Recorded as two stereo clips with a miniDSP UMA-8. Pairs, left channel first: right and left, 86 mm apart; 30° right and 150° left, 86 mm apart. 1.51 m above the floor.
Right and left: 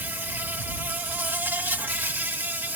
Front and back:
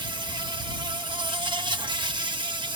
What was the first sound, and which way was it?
An insect, 155° left.